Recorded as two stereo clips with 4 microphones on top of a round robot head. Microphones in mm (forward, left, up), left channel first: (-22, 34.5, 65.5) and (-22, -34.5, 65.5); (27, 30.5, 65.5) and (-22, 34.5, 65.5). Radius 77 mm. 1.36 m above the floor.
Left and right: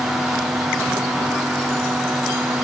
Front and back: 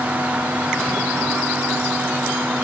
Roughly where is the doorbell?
No doorbell in this recording.